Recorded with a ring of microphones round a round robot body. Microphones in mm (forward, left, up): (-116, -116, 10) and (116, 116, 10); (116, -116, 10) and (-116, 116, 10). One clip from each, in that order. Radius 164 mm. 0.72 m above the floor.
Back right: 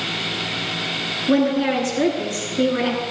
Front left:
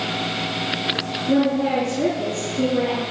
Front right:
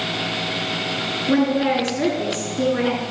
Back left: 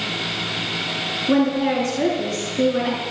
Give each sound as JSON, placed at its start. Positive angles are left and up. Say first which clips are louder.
{"t": 1.3, "sound": "a woman speaking", "louder": "back right 1 dB, front right 1 dB", "azimuth_deg": -135, "distance_m": 8.5}